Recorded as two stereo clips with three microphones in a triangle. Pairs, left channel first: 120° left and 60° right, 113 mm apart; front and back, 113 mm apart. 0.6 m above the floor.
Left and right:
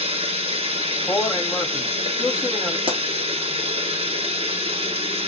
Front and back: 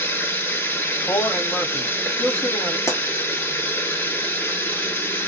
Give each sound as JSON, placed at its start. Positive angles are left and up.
{"t": 0.0, "sound": "running water", "azimuth_deg": -70, "distance_m": 1.0}
{"t": 1.1, "sound": "a man speaking", "azimuth_deg": 45, "distance_m": 1.6}
{"t": 2.9, "sound": "a pop", "azimuth_deg": -55, "distance_m": 1.1}